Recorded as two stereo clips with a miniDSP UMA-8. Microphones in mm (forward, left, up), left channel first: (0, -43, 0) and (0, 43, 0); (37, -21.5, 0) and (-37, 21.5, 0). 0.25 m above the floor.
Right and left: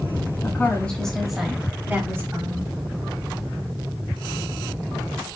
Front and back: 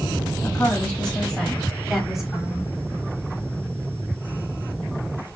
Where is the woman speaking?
80° right, 1.5 m; by 2.7 s 70° left, 1.8 m.